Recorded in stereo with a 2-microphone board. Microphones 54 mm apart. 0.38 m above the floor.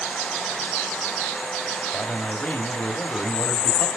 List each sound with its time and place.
1.9 s a man speaking: 25° left (ahead or behind), 1.8 m